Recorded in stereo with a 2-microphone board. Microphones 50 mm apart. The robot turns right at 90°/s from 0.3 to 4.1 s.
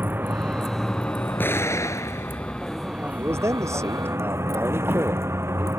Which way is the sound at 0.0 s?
40° right.